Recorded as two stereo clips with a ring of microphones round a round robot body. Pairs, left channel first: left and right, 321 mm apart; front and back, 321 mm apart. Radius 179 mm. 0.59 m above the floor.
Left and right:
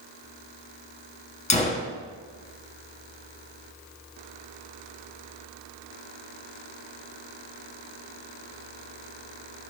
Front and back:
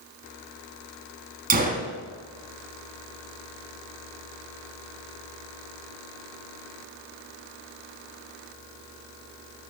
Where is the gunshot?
140° left, 1.2 m.